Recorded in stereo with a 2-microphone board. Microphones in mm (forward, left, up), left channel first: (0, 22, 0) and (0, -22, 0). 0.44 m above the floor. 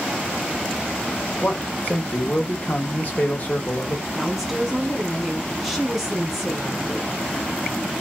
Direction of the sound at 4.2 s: 5° right (ahead or behind).